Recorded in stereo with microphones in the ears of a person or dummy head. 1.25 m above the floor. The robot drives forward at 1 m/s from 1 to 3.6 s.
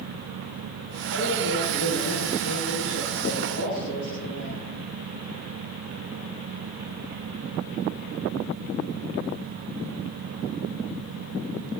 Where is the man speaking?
60° left (ahead or behind), 9 m; by 4.7 s 50° left (ahead or behind), 10.5 m.